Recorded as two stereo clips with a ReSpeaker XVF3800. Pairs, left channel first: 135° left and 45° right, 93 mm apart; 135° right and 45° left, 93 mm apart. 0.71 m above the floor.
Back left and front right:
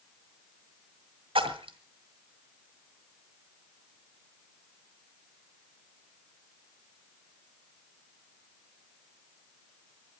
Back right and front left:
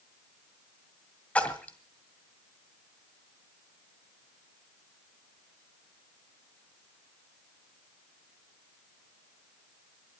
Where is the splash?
60° right, 1.9 m.